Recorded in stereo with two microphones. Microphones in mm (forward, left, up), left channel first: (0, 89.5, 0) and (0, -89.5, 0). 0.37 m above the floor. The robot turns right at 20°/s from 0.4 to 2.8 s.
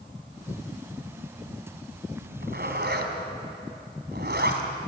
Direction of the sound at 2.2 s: 70° right (ahead or behind).